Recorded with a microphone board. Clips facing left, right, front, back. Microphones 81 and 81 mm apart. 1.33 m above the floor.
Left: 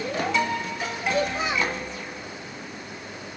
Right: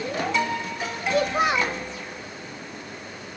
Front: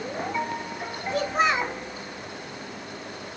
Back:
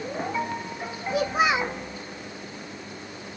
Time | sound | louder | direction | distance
1.1 | a child speaking | right 4 dB, back 1 dB | 100° right | 1.0 m